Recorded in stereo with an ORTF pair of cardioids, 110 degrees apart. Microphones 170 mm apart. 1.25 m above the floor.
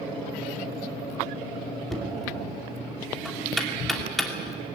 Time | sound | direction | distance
1.9 | knocking | straight ahead | 3 m